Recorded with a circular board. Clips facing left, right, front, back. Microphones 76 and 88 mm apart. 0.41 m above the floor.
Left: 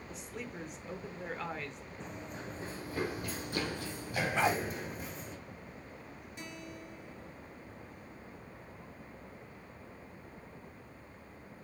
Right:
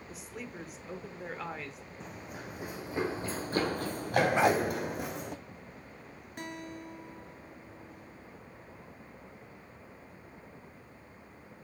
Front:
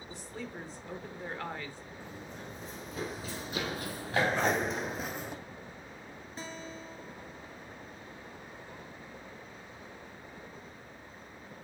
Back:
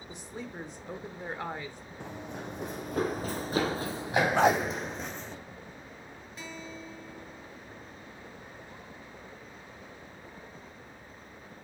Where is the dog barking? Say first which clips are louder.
Right 3 dB, back 6 dB; 160° right, 0.6 m.